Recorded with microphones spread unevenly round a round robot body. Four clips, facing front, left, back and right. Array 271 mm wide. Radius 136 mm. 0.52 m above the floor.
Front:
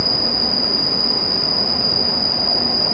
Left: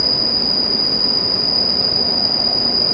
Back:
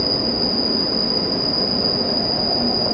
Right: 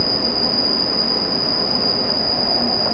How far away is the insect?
About 8 m.